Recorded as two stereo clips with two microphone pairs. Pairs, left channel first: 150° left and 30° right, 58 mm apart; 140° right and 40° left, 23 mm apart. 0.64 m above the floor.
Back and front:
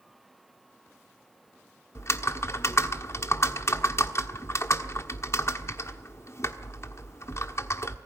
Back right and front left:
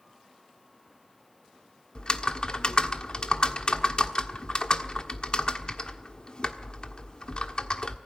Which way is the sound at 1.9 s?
Straight behind.